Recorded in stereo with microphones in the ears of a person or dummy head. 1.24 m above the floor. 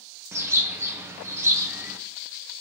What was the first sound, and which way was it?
A bird, 5° right (ahead or behind).